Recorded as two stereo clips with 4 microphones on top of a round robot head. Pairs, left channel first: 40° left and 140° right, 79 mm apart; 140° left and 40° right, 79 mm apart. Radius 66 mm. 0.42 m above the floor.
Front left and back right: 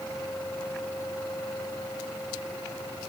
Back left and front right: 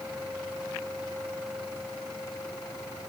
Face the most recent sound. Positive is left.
No sound to turn to.